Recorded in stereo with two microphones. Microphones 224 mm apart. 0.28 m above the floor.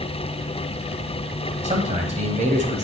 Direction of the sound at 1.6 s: 30° right (ahead or behind).